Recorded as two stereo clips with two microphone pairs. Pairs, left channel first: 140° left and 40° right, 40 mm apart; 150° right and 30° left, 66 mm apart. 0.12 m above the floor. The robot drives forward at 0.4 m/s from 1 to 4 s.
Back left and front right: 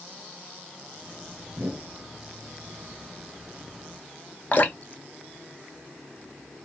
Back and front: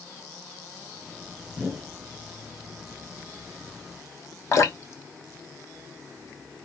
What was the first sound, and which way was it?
A whoosh, 45° right.